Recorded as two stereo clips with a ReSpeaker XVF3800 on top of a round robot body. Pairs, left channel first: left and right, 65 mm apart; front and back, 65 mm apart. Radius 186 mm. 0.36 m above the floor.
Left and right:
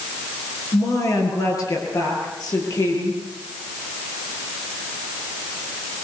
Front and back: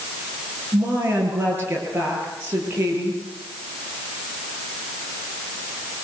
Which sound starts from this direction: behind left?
A woman speaking, at 0.7 s.